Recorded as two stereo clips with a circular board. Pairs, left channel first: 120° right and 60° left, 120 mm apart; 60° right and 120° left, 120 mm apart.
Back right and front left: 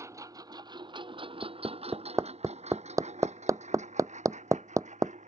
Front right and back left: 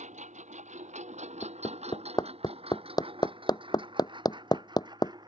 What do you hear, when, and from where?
0.0 s a lawn mower: 125° left; by 5.3 s 65° left
1.4 s hammering: 5° right